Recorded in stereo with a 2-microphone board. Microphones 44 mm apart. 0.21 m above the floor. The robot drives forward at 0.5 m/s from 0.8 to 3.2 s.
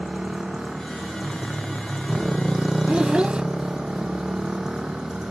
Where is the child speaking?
25° right (ahead or behind).